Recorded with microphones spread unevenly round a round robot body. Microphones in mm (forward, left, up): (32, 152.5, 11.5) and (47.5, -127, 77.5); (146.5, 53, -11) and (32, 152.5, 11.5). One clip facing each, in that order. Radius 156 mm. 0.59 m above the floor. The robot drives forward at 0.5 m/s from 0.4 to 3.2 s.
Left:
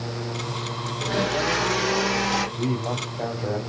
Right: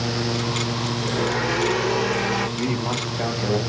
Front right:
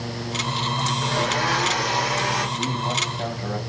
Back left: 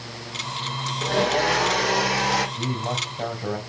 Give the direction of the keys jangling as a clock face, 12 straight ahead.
No keys jangling in this recording.